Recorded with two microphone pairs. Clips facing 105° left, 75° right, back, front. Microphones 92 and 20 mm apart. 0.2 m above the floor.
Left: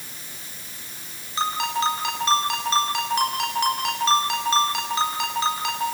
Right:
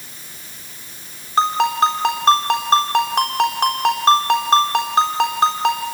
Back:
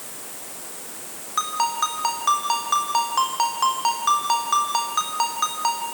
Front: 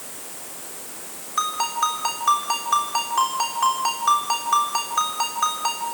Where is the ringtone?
120° right, 4 m.